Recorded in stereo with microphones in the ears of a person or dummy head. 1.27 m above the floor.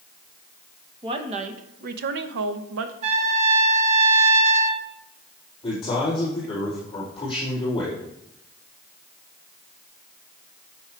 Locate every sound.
1.0 s a woman speaking: 30° right (ahead or behind), 1.0 m; by 2.9 s 80° right, 0.9 m
3.0 s a trumpet: 40° right (ahead or behind), 1.1 m
5.6 s a man speaking: 25° left (ahead or behind), 4 m